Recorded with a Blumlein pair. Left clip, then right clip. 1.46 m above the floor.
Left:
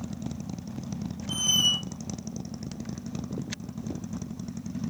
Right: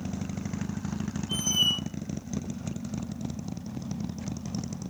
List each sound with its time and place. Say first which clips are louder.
1.3 s a squeak: left 2 dB; 55° left, 0.9 m